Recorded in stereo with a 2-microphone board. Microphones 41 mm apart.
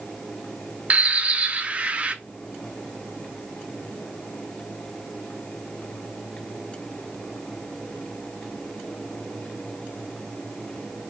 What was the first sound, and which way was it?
A bird, 35° right (ahead or behind).